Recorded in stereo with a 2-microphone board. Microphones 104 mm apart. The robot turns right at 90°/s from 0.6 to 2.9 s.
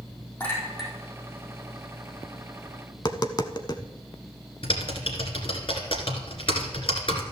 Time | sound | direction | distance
0.4 | a clink | 20° left (ahead or behind) | 4 m
2.9 | tapping | 45° left (ahead or behind) | 0.7 m
4.6 | typing on a keyboard | 60° left (ahead or behind) | 2 m